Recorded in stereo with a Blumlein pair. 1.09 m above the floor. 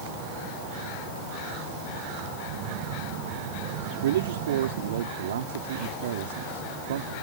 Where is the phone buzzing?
45° right.